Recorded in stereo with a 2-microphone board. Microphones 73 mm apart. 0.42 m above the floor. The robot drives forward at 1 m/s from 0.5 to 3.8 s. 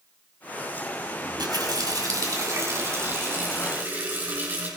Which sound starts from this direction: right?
A running tap, at 1.2 s.